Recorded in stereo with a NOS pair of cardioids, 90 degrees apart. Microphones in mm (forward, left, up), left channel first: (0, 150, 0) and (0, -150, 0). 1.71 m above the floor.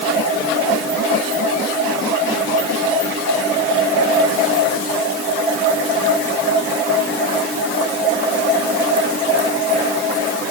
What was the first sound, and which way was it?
Only background noise.